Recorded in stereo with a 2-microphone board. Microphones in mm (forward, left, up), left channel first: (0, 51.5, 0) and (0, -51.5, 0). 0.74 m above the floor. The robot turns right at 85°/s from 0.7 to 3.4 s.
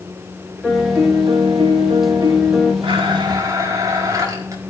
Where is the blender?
90° right, 4.5 m; by 4.6 s 40° right, 4.5 m.